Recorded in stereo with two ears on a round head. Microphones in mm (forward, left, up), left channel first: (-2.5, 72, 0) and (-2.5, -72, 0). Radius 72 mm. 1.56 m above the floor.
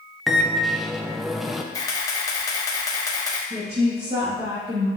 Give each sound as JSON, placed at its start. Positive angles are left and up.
{"t": 0.3, "sound": "a microwave", "side_deg": 0, "distance_m": 0.5}
{"t": 1.7, "sound": "a camera shutter", "side_deg": 20, "distance_m": 1.1}
{"t": 3.5, "sound": "a woman speaking", "side_deg": -35, "distance_m": 2.5}